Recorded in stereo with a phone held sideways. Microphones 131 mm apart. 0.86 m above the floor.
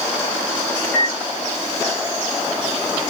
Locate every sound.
0.8 s a microwave: 70° right (ahead or behind), 1.2 m